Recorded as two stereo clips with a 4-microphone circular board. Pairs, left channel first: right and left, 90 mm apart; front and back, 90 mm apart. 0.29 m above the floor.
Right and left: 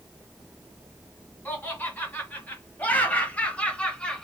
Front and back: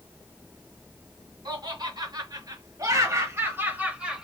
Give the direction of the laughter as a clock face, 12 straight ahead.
5 o'clock.